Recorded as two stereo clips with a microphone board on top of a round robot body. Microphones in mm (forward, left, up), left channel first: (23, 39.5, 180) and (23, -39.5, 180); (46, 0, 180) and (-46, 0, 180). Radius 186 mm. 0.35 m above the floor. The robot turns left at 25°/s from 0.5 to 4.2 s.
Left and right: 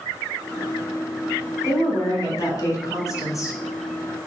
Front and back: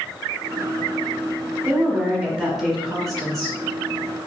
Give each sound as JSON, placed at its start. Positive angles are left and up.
{"t": 1.6, "sound": "a woman speaking", "azimuth_deg": 120, "distance_m": 1.7}